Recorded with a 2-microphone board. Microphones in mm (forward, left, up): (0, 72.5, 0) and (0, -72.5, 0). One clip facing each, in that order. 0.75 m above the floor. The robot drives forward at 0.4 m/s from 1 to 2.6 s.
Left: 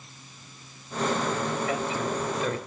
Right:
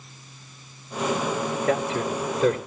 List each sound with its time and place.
1.7 s a man speaking: 70° right (ahead or behind), 2.5 m; by 2.6 s 65° right (ahead or behind), 3 m